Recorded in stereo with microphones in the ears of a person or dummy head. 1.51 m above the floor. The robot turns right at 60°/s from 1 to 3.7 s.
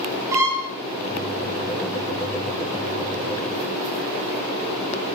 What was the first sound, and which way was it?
A violin, 15° right (ahead or behind).